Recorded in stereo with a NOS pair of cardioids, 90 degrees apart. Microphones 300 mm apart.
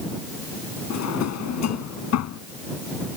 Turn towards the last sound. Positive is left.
turn(degrees=70)